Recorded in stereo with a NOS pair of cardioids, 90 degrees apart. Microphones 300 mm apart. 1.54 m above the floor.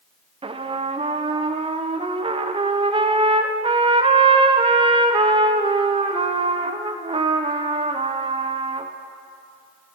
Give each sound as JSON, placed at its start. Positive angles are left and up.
{"t": 0.4, "sound": "a trumpet", "azimuth_deg": -20, "distance_m": 0.6}